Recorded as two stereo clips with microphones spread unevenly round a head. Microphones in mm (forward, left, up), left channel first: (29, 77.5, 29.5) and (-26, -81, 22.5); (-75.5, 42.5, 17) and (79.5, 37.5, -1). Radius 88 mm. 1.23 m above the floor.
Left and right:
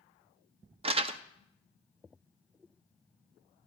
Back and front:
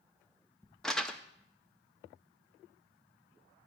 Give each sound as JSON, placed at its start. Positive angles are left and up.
{"t": 0.8, "sound": "crumpling", "azimuth_deg": -90, "distance_m": 0.6}